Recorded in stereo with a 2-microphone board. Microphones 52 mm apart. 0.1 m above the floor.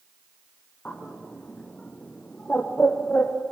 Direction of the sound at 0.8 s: 25° left (ahead or behind).